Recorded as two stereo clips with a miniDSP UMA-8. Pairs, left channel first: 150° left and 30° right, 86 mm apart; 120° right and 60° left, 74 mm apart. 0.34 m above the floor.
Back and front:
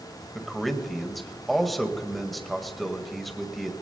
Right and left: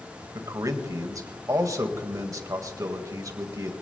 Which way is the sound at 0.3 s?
60° left.